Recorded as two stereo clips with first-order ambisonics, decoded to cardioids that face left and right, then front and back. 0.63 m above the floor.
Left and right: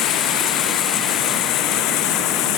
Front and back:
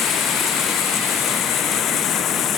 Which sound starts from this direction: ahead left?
Running water, at 0.0 s.